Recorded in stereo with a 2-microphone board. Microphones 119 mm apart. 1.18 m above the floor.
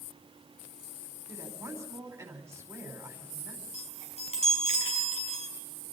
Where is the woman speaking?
20° right (ahead or behind), 5 m.